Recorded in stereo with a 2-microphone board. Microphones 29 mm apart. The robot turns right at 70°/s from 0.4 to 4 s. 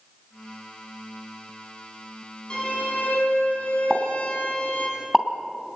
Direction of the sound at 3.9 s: 20° right (ahead or behind).